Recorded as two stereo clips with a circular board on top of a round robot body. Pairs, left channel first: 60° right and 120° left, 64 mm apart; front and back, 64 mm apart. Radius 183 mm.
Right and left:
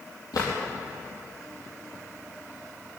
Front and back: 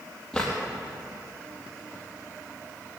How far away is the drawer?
About 4 m.